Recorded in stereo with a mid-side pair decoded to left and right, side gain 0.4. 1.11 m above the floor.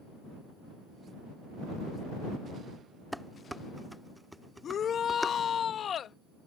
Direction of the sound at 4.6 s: 60° left.